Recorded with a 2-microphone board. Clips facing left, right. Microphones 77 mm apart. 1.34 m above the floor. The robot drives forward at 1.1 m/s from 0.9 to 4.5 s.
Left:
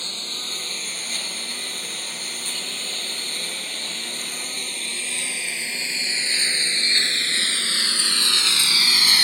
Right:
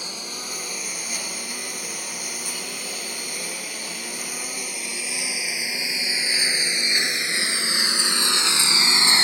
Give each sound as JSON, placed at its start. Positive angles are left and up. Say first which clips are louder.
{"t": 0.0, "sound": "a lawn mower", "louder": "right 1 dB", "side_deg": -10}